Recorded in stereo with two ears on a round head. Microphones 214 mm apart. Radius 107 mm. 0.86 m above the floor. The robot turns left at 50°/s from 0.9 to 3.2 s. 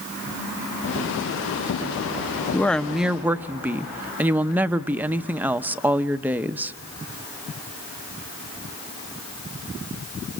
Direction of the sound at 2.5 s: 10° left (ahead or behind).